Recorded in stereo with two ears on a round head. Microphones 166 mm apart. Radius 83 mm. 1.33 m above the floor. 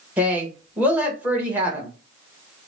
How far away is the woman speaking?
About 1.1 m.